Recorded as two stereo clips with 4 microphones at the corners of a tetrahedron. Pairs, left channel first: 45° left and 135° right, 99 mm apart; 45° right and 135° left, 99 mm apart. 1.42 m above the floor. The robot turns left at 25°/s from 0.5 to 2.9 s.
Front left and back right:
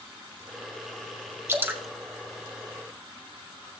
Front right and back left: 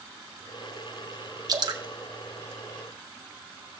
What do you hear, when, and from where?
1.5 s dripping: 170° left, 0.9 m; by 1.8 s 160° left, 0.9 m